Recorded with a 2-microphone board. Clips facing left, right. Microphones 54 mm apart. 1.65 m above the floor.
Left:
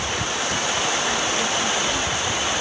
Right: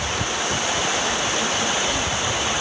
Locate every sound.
Only background noise.